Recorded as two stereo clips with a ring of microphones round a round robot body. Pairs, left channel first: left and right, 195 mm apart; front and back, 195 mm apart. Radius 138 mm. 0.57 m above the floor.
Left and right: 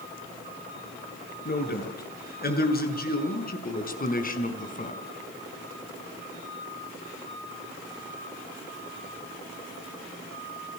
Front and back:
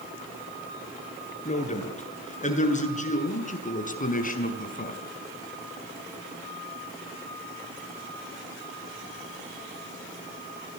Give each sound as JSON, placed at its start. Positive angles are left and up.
{"t": 1.4, "sound": "a man speaking", "azimuth_deg": 55, "distance_m": 8.5}